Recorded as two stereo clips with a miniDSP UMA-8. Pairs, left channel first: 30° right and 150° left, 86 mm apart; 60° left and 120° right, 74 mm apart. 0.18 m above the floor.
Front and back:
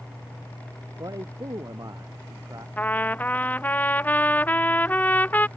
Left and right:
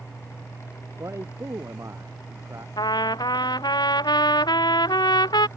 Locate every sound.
1.0 s a man speaking: 165° right
2.8 s a trumpet: 40° left